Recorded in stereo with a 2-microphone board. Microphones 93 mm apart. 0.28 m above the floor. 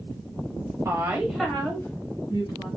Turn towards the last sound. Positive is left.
turn(degrees=40)  # may be behind; listen again after turning